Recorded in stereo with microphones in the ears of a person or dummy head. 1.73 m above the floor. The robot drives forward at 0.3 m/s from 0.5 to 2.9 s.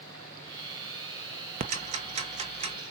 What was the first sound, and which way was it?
Ticking, 35° right (ahead or behind).